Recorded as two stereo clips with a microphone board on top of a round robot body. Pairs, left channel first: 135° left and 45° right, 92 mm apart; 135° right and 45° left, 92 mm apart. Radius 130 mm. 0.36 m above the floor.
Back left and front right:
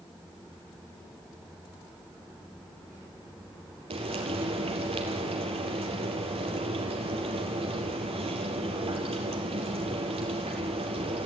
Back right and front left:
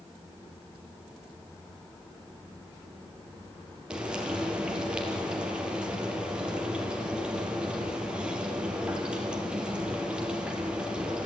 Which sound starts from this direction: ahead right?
Frying, at 3.9 s.